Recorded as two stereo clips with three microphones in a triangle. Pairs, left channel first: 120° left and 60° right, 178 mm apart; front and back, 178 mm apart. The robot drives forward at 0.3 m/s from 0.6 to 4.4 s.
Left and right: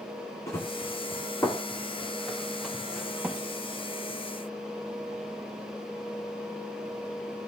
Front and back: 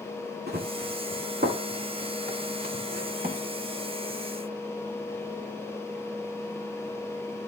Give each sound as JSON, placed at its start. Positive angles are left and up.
{"t": 0.5, "sound": "running footsteps", "azimuth_deg": -170, "distance_m": 3.0}